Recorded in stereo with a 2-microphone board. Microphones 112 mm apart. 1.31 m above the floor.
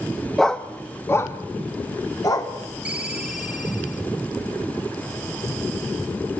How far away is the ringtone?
About 1.7 m.